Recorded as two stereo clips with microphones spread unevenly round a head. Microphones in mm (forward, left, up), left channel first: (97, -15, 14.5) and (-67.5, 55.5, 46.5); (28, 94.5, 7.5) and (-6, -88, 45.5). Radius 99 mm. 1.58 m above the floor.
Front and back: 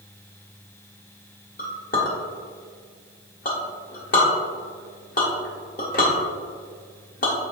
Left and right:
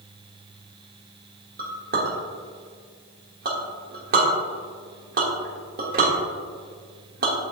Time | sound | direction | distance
1.6 | a clink | 75° right | 1.5 m